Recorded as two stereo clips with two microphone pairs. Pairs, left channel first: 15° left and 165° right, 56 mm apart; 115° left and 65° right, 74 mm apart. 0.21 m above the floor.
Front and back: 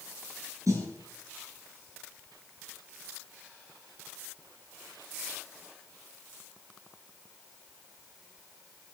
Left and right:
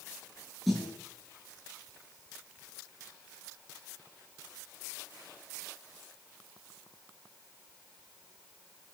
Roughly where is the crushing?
I don't hear crushing.